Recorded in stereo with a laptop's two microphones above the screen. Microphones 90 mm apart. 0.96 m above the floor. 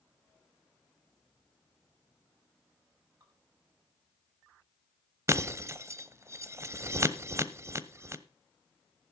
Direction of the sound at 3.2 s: 45° right (ahead or behind).